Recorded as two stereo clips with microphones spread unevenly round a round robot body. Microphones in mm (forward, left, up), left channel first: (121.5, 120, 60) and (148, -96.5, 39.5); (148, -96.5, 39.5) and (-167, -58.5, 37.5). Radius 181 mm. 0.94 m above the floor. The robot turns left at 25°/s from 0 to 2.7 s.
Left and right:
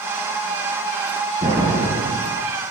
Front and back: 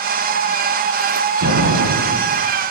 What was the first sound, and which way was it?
An explosion, 150° right.